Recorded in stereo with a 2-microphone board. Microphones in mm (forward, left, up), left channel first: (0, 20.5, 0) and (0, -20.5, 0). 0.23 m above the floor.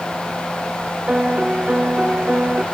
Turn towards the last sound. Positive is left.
turn(degrees=-30)  # may be behind; listen again after turning